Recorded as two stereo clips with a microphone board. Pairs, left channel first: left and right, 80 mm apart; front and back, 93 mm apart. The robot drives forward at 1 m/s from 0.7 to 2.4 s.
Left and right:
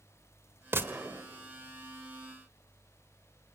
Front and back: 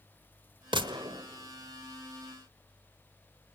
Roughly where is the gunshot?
Behind right.